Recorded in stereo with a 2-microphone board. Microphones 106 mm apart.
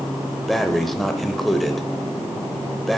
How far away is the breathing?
About 0.7 m.